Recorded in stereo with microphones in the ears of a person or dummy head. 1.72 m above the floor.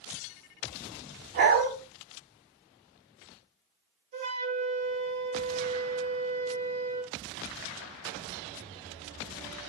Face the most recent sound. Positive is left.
turn(degrees=-40)  # may be behind; listen again after turning